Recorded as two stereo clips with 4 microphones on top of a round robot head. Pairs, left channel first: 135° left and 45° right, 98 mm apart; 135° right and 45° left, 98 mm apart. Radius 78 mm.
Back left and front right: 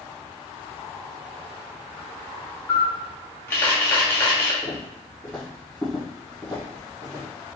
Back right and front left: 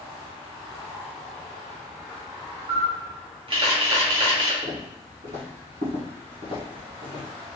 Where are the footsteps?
70° left, 1.9 m; by 7.2 s 5° left, 1.3 m.